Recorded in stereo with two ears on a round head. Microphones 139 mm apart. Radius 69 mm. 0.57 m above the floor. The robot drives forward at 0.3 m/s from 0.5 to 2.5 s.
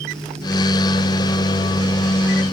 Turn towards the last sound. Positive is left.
No sound to turn to.